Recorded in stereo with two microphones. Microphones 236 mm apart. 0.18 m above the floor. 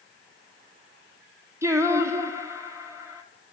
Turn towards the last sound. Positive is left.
turn(degrees=-10)  # may be behind; listen again after turning